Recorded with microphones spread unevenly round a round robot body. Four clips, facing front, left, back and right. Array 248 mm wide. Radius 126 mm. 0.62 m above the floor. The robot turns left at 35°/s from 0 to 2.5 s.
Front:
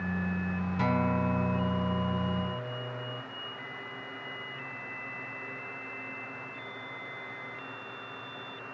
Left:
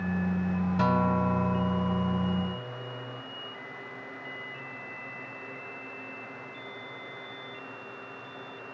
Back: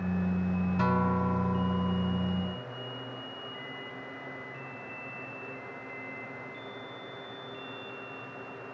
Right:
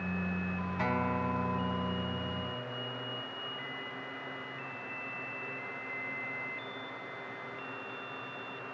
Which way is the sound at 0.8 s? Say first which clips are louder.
Left 6 dB, even; 105° left.